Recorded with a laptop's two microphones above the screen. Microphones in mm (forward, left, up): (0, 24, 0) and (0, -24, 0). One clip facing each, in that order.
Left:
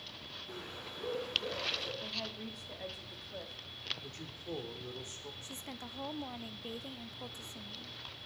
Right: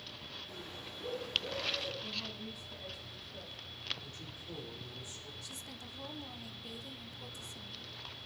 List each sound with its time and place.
0.5 s a bird: 45° left (ahead or behind), 5 m
2.0 s a woman speaking: 65° left (ahead or behind), 2.5 m
4.0 s a man speaking: 50° left (ahead or behind), 3 m
5.4 s a woman speaking: 30° left (ahead or behind), 0.8 m